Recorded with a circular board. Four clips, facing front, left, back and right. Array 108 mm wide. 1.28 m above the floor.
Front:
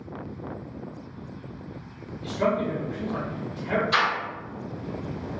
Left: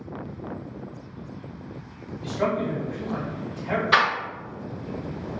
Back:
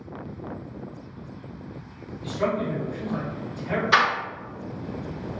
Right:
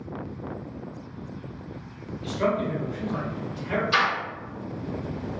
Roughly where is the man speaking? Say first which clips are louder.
Even, front 1 dB; left.